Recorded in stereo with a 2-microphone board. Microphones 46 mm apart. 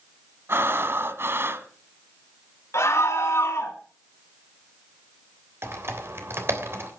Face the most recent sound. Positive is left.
turn(degrees=-60)  # may be behind; listen again after turning